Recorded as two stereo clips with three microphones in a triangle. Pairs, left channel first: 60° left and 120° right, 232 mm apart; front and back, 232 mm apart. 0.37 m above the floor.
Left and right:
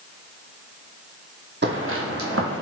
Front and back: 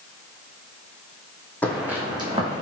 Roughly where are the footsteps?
Right.